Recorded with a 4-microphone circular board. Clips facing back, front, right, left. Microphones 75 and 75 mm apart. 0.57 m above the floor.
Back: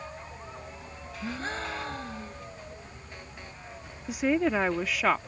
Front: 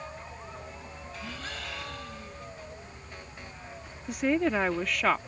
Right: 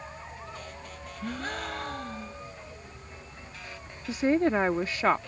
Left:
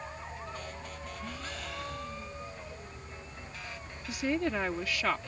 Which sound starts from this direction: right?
A woman speaking, at 4.1 s.